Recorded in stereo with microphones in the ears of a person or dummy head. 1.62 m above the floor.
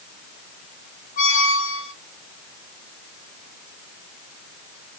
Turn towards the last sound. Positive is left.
turn(degrees=50)  # may be behind; listen again after turning